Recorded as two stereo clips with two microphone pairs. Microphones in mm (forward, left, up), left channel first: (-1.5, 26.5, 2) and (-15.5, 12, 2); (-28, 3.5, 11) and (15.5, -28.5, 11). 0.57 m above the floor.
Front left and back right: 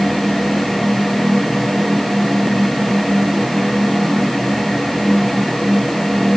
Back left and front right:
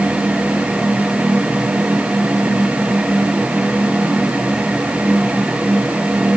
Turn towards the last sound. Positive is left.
No sound to turn to.